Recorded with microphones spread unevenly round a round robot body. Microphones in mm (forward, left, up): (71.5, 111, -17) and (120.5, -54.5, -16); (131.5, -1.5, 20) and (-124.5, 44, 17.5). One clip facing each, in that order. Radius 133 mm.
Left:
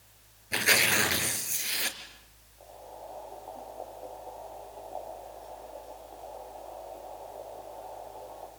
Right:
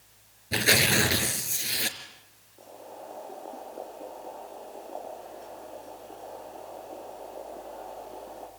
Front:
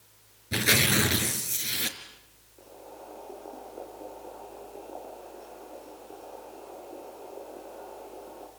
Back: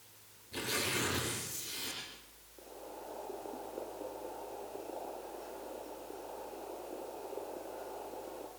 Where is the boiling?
95° right, 6 m.